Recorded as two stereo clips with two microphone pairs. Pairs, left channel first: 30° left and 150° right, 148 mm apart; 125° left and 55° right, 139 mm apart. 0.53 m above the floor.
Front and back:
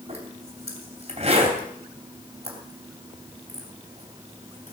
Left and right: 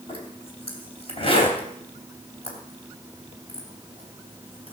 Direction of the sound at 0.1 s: 170° left.